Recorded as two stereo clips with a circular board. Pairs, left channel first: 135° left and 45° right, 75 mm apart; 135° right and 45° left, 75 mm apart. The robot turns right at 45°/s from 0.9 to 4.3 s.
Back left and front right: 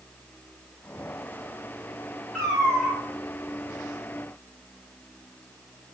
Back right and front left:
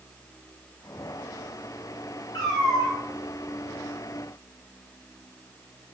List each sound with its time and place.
2.3 s a cat meowing: 145° right, 1.4 m; by 3.0 s 115° right, 1.4 m